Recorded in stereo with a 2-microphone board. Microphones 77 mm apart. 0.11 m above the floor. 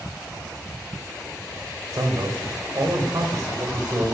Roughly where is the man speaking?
Right.